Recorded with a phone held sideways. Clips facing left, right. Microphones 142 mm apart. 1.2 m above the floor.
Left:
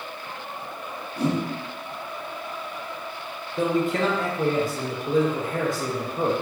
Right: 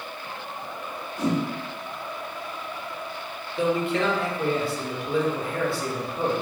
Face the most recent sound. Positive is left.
turn(degrees=45)  # may be behind; listen again after turning